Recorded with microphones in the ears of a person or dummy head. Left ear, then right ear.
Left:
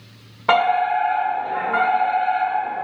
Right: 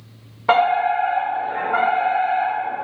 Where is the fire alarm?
5° left (ahead or behind), 1.2 m.